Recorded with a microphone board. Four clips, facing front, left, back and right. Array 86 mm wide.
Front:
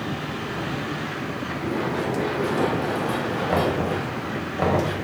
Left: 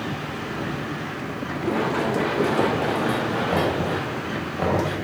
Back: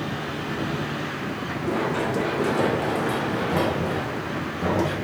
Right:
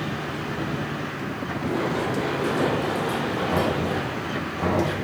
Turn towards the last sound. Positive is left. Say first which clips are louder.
# even, front 4 dB
turn(degrees=25)